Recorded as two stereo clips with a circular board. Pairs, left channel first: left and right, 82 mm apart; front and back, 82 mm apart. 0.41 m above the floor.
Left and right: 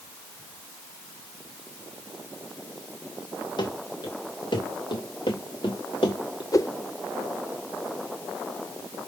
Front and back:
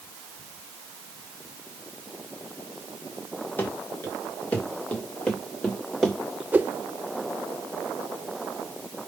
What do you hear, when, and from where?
3.6 s running footsteps: 65° left, 4 m; by 6.4 s 90° left, 2.5 m
6.5 s a whoosh: 115° left, 0.7 m